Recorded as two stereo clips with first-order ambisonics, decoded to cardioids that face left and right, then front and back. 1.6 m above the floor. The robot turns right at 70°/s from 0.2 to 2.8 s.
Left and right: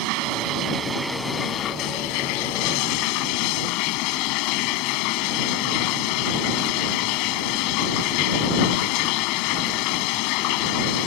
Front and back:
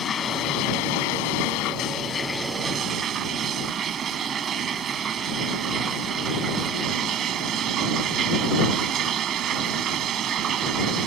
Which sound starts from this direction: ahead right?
Running water, at 0.0 s.